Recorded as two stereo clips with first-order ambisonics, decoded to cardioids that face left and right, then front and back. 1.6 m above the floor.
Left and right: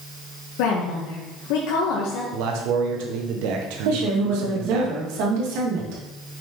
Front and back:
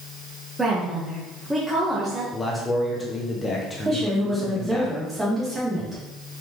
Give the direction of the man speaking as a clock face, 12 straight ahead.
3 o'clock.